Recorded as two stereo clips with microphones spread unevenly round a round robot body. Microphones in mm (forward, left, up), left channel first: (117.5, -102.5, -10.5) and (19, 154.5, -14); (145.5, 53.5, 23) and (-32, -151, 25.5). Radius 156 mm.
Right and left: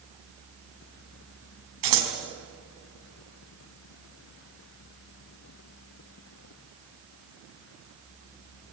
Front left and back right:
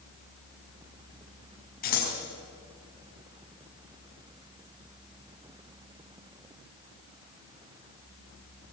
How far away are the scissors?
About 4 m.